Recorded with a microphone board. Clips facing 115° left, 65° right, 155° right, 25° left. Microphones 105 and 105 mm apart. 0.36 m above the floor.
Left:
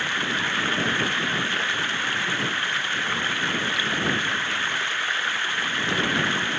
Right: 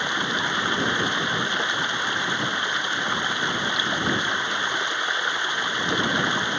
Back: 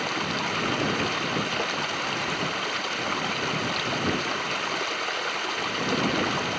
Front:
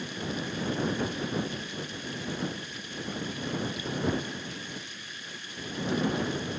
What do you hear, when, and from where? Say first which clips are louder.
0.0 s running water: right 2 dB, back 6 dB; 140° right